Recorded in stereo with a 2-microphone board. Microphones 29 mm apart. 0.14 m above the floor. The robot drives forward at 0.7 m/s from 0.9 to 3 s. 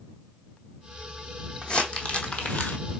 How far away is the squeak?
I don't hear a squeak.